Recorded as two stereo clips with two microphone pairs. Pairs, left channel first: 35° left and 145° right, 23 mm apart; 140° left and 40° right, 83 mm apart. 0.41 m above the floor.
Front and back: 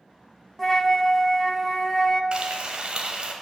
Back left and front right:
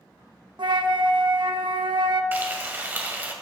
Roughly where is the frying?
Right.